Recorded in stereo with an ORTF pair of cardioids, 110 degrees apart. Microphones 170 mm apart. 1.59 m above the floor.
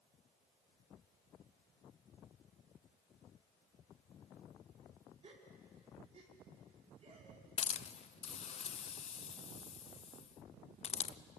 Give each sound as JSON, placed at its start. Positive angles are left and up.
{"t": 5.2, "sound": "a gasp", "azimuth_deg": -40, "distance_m": 4.5}
{"t": 7.6, "sound": "a hiss", "azimuth_deg": 40, "distance_m": 0.8}